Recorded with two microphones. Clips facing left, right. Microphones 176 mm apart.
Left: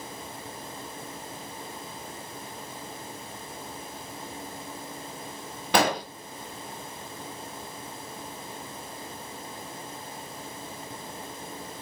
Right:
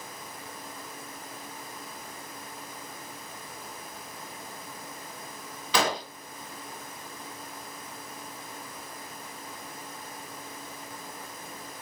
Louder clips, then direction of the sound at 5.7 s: Left 4 dB; 55° left (ahead or behind).